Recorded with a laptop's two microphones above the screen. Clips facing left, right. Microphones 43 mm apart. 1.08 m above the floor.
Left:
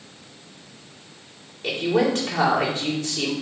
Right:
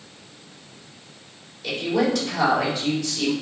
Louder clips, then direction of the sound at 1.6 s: Left 1 dB; 45° left (ahead or behind).